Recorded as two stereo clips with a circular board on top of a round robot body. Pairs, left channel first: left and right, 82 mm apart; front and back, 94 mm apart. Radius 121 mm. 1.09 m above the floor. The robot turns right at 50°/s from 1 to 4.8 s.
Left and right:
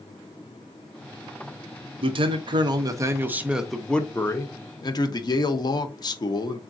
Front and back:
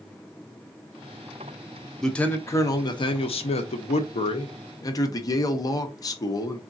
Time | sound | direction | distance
2.0 | a man speaking | 85° right | 0.8 m